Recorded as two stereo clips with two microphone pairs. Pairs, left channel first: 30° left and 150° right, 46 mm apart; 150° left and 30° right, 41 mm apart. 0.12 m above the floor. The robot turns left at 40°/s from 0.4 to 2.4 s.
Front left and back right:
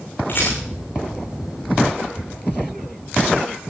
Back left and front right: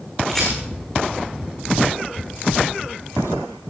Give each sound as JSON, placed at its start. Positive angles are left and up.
{"t": 0.3, "sound": "a rattle", "azimuth_deg": 70, "distance_m": 7.0}